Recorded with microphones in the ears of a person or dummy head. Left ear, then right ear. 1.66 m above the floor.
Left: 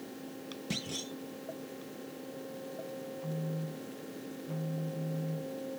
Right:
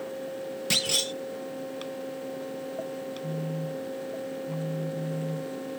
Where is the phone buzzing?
40° right (ahead or behind).